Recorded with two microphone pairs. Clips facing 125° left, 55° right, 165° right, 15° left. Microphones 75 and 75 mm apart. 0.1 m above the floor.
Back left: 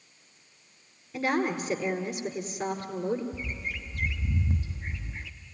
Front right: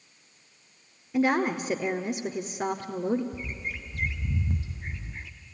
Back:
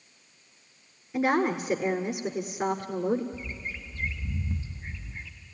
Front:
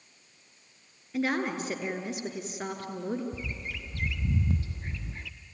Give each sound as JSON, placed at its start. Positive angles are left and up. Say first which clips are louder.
{"t": 1.1, "sound": "a woman speaking", "louder": "front right 3 dB, back 4 dB", "azimuth_deg": -100, "distance_m": 1.4}
{"t": 3.3, "sound": "a bird", "louder": "even, even", "azimuth_deg": 35, "distance_m": 0.9}